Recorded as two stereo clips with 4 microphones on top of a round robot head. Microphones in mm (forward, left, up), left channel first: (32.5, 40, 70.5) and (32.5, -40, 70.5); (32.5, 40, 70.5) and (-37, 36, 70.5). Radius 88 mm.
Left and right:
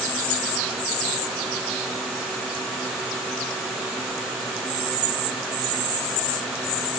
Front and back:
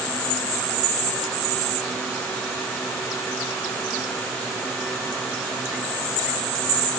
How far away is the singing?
I don't hear singing.